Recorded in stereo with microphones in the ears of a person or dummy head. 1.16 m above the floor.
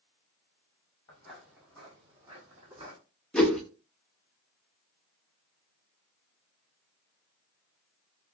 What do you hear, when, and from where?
1.1 s footsteps: 15° left (ahead or behind), 1.1 m; by 3.0 s 35° right (ahead or behind), 2 m
3.3 s a whoosh: 5° left (ahead or behind), 0.6 m